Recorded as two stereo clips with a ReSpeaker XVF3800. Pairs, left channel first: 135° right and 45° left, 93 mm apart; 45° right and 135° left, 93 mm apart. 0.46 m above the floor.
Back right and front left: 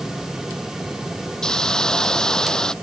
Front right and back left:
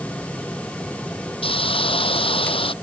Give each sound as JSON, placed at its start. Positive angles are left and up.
{"t": 1.4, "sound": "a hiss", "azimuth_deg": -50}